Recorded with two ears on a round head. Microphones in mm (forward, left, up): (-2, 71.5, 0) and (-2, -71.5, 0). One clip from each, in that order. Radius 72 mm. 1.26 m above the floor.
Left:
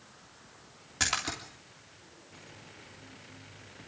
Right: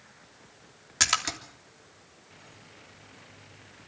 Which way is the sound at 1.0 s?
45° right (ahead or behind).